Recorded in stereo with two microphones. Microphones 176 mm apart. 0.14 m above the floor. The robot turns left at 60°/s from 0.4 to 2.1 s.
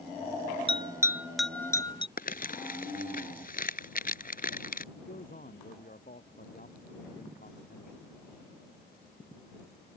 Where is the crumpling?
55° left (ahead or behind).